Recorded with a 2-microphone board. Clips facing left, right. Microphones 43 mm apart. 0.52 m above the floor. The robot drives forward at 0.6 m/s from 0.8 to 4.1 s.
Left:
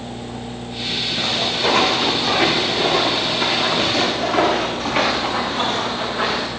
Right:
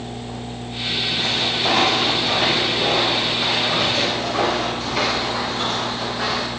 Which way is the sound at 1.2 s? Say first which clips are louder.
Left 3 dB; 70° left (ahead or behind).